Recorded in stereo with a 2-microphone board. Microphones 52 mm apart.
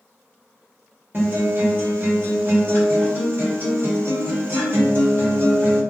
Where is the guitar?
45° right (ahead or behind), 2.0 m.